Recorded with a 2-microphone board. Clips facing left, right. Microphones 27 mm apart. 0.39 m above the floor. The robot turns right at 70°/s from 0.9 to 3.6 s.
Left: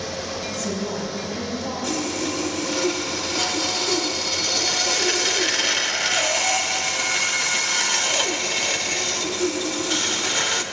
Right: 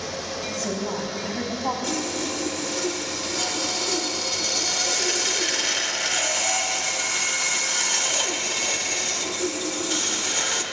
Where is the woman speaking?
150° right, 2.5 m; by 1.7 s 90° right, 2.5 m.